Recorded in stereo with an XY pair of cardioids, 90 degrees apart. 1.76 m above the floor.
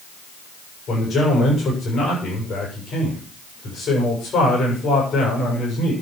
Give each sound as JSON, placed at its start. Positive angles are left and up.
{"t": 0.9, "sound": "a man speaking", "azimuth_deg": 70, "distance_m": 7.0}